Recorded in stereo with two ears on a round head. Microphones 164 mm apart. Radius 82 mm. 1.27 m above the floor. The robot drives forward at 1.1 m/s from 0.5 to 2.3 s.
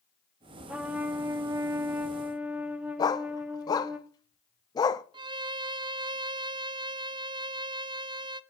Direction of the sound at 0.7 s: 5° right (ahead or behind).